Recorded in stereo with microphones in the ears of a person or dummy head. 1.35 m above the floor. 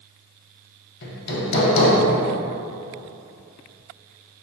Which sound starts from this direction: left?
Hammering, at 1.0 s.